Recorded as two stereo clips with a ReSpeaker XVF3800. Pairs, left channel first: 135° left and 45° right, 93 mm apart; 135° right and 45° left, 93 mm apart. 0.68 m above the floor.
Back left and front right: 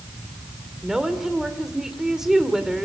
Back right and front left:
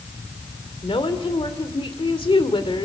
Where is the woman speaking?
130° right, 2 m.